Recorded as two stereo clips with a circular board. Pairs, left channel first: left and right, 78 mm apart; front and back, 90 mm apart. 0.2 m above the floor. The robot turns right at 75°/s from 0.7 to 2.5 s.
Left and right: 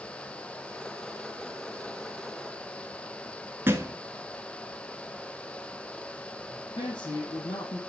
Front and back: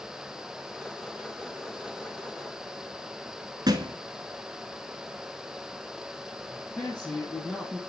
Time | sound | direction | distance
3.7 | a thud | 145° right | 1.0 m
6.5 | a man speaking | 80° left | 4 m